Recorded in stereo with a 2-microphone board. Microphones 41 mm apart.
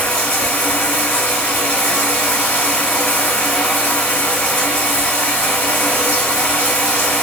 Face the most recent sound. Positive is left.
turn(degrees=35)  # may be behind; listen again after turning